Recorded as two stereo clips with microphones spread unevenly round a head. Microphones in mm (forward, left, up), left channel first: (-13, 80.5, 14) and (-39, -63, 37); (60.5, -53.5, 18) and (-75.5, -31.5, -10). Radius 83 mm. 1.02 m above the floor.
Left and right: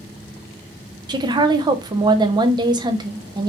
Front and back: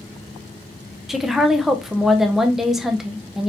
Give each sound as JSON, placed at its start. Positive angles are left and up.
{"t": 1.1, "sound": "a woman speaking", "azimuth_deg": -135, "distance_m": 0.5}